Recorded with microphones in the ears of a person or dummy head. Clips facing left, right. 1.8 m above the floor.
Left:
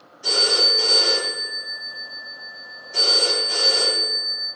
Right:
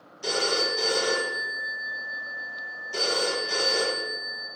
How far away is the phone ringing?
About 1.3 m.